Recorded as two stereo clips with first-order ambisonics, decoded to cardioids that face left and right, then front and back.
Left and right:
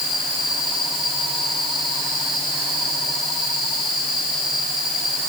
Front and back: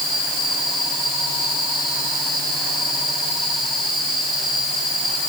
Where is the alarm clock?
I don't hear an alarm clock.